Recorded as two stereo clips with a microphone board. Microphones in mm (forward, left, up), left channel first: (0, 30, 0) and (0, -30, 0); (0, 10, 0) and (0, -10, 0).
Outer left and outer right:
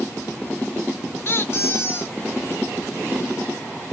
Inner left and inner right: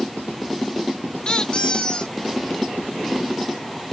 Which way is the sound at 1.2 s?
45° left (ahead or behind).